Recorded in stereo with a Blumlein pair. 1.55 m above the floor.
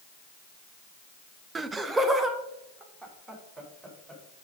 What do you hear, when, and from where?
1.6 s laughter: 15° right, 0.5 m; by 4.2 s 5° right, 4.5 m